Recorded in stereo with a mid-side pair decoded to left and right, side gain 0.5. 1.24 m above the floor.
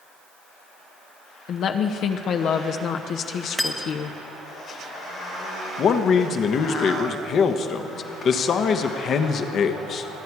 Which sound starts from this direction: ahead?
Cutlery clinking, at 3.6 s.